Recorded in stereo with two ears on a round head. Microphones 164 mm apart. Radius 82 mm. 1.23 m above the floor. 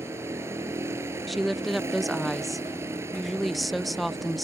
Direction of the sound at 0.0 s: 15° right (ahead or behind).